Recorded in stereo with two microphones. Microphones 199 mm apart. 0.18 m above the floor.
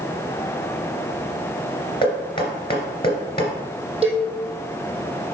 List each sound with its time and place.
2.0 s knocking: 25° left (ahead or behind), 2.5 m
4.0 s a cowbell: 30° right (ahead or behind), 3 m